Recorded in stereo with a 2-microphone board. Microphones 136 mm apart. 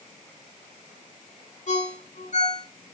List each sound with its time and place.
1.7 s a ringtone: 65° left (ahead or behind), 3.5 m